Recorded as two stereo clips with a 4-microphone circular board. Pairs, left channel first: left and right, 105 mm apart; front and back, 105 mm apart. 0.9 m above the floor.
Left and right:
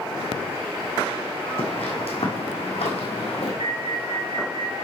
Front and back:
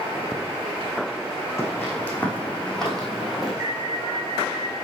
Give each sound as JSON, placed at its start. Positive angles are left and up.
{"t": 1.6, "sound": "footsteps", "azimuth_deg": 70, "distance_m": 3.5}
{"t": 3.6, "sound": "an alarm", "azimuth_deg": -125, "distance_m": 3.0}